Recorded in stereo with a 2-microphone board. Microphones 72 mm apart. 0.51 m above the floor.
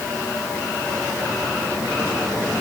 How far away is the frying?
No frying in this recording.